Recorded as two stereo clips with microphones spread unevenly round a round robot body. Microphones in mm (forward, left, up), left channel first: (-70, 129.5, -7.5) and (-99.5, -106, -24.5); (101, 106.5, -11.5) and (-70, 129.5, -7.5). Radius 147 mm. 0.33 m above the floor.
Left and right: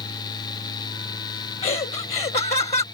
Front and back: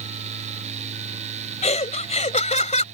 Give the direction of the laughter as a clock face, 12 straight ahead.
11 o'clock.